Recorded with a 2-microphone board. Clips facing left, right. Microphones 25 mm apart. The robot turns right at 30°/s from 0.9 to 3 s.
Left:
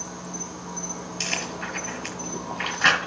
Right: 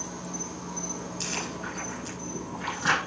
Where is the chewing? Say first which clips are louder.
Left 6 dB; 45° left (ahead or behind), 4.5 m; by 3.1 s 70° left (ahead or behind), 4.5 m.